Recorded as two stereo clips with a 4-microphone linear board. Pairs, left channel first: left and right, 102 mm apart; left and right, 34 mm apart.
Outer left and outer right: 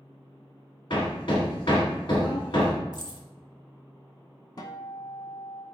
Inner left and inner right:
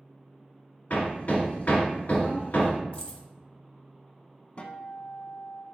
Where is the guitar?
45° left (ahead or behind), 0.7 m.